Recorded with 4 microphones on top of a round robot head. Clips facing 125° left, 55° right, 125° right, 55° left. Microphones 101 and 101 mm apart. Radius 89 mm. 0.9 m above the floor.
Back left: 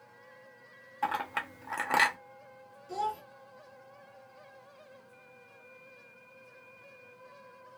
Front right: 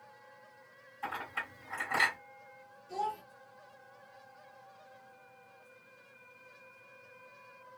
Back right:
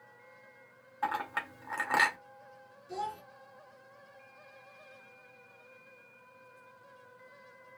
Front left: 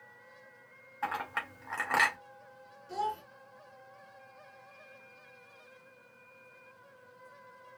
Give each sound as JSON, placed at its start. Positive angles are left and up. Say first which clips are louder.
{"t": 1.0, "sound": "a clink", "louder": "back left 7 dB, back right 2 dB", "azimuth_deg": 150, "distance_m": 0.8}
{"t": 2.9, "sound": "a child speaking", "louder": "back left 2 dB, front left 3 dB", "azimuth_deg": 145, "distance_m": 2.5}